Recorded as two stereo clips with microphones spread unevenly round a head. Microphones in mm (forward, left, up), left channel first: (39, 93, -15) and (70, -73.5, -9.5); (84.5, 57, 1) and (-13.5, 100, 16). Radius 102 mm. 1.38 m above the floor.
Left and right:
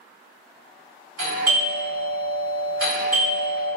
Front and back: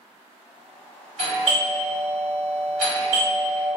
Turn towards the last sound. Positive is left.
turn(degrees=-115)